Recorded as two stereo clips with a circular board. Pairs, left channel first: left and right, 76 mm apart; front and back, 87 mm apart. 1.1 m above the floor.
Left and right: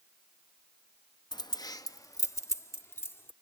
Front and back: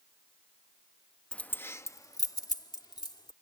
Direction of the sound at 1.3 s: 80° left.